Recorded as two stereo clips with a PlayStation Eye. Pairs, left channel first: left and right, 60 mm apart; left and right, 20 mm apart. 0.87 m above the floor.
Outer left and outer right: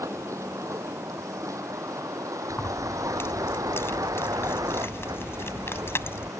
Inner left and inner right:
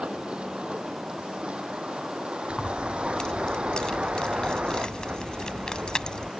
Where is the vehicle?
60° right (ahead or behind); by 6.4 s 75° right (ahead or behind).